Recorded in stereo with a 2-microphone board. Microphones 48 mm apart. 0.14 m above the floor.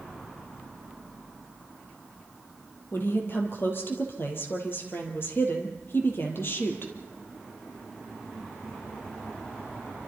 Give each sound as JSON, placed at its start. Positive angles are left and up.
{"t": 2.9, "sound": "a woman speaking", "side_deg": 50, "distance_m": 4.0}